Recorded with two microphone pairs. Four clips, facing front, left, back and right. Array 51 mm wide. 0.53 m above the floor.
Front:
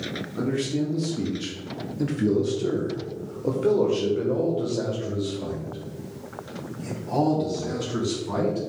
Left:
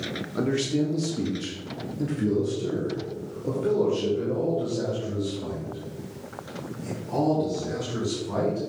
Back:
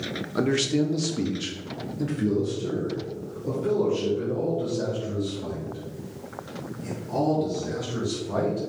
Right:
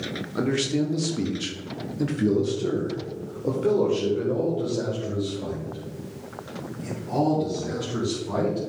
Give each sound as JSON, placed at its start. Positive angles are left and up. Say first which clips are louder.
{"t": 0.3, "sound": "a man speaking", "louder": "right 1 dB, back 3 dB", "azimuth_deg": -165, "distance_m": 1.2}